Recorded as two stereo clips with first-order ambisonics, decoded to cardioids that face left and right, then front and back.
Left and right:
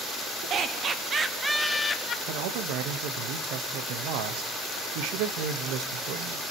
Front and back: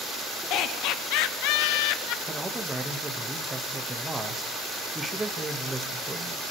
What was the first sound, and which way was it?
Laughter, 35° right.